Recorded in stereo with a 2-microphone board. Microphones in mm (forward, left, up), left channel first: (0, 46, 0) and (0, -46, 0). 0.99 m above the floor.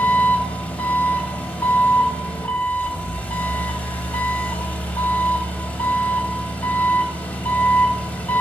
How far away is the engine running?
About 1.4 m.